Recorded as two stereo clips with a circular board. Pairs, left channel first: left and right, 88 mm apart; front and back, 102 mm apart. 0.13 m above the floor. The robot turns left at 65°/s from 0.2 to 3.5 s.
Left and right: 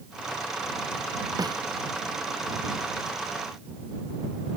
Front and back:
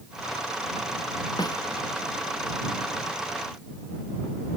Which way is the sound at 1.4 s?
45° right.